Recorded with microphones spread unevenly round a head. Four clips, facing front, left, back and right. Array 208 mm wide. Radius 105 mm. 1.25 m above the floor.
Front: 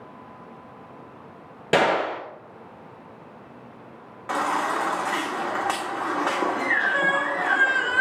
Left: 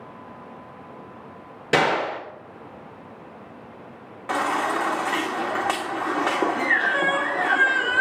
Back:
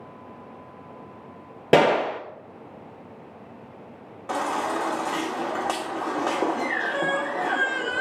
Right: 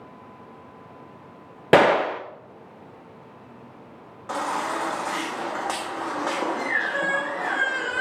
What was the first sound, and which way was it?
A gunshot, 135° right.